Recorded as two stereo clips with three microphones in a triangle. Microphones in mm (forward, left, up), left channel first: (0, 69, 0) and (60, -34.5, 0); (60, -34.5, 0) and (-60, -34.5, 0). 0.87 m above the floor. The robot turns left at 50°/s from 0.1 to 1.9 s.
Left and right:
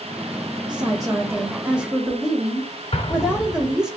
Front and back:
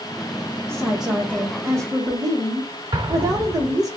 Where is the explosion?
140° left, 0.8 m.